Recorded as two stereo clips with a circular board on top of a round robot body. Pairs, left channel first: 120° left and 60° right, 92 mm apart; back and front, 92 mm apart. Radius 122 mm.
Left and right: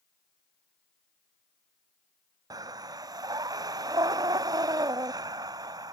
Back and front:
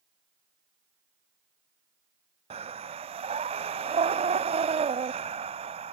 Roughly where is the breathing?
Ahead.